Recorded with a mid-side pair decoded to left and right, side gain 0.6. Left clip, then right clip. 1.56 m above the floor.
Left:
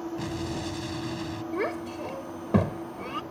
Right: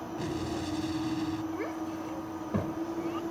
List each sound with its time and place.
0.2 s an explosion: 20° left
1.5 s a child speaking: 45° left